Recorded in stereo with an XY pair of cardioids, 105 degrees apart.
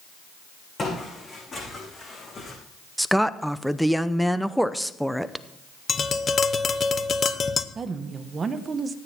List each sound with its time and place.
0.8 s footsteps: 35° left, 7.5 m; by 2.6 s 40° left, 6.5 m
3.0 s a woman speaking: straight ahead, 0.7 m
5.9 s tapping: 40° left, 0.9 m
7.8 s a woman speaking: 40° right, 1.3 m